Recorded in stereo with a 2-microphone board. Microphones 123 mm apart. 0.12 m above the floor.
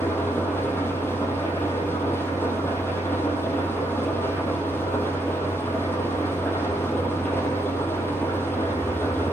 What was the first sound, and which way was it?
An engine running, 20° left (ahead or behind).